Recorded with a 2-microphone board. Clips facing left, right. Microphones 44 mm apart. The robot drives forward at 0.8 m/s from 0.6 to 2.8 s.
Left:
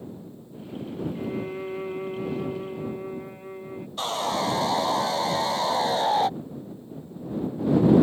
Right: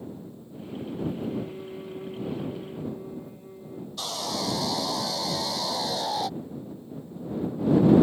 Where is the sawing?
35° left (ahead or behind).